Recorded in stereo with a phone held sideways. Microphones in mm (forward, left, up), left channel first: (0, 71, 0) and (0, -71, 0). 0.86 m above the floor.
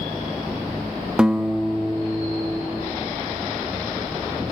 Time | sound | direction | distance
1.2 | a guitar | 5° right (ahead or behind) | 0.5 m